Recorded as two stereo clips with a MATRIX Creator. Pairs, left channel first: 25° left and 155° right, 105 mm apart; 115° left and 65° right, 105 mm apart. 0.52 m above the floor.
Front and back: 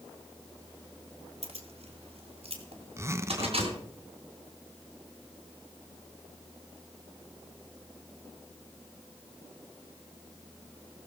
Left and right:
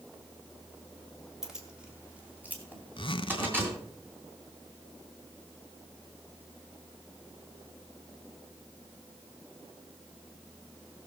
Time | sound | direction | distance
1.4 | keys jangling | 150° right | 2 m
3.0 | a zipper | 145° left | 0.7 m